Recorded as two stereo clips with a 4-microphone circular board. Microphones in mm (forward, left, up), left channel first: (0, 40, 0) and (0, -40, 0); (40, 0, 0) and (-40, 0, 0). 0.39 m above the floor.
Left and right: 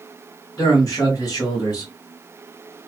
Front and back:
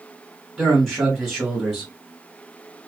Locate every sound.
0.6 s a man speaking: 100° left, 1.3 m